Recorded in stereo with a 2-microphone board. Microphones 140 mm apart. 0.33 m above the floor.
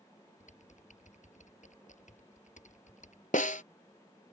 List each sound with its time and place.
0.4 s typing on a keyboard: 65° left (ahead or behind)
3.3 s a snare drum: 70° left (ahead or behind)